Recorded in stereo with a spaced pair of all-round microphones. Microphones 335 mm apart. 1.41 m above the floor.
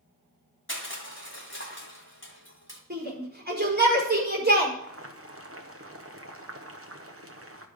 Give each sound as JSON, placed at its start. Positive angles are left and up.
{"t": 0.7, "sound": "crushing", "side_deg": 35, "distance_m": 1.9}
{"t": 2.9, "sound": "a shout", "side_deg": -30, "distance_m": 5.0}
{"t": 4.8, "sound": "boiling", "side_deg": -40, "distance_m": 1.0}